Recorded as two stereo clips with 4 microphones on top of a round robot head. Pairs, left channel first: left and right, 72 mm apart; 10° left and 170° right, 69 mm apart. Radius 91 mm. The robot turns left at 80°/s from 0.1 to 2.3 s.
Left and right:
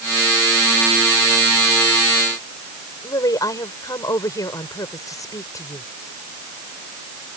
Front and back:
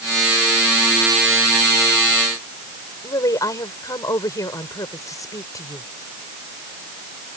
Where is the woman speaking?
50° left.